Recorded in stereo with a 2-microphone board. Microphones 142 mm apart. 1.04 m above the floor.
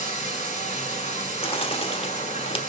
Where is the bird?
45° left (ahead or behind), 0.9 m.